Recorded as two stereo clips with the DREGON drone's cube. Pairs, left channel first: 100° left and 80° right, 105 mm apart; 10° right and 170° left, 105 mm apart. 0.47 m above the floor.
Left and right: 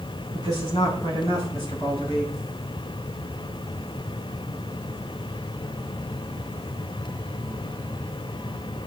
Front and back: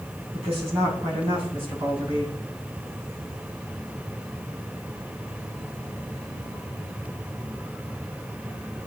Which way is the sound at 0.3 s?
150° left.